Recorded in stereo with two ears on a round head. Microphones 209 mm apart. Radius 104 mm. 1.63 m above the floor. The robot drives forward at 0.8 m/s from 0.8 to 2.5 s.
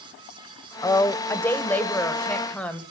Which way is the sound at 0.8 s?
15° left (ahead or behind).